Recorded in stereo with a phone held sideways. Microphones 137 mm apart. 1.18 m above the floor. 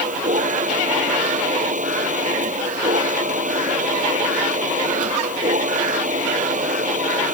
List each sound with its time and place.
0.0 s a machine running: 70° right (ahead or behind)